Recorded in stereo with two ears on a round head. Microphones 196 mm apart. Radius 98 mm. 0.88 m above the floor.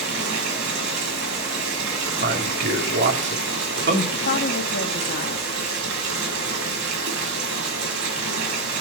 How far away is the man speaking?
About 2.5 m.